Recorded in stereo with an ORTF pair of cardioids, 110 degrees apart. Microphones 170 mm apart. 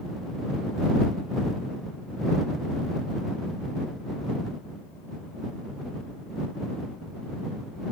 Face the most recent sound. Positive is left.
No sound to turn to.